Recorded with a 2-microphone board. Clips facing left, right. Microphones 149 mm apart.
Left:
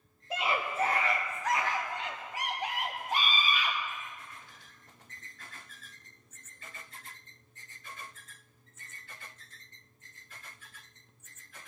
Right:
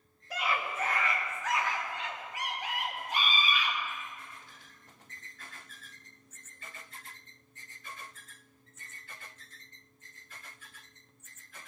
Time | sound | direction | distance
0.3 | a scream | 20° left (ahead or behind) | 0.9 m